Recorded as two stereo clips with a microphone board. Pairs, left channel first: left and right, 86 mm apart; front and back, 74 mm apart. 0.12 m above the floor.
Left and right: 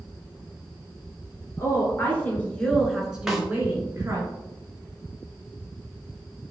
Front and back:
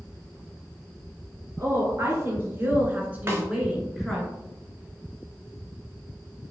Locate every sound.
1.6 s a woman speaking: 140° left, 1.6 m; by 4.3 s 85° right, 1.3 m
3.3 s a snare drum: 175° right, 1.1 m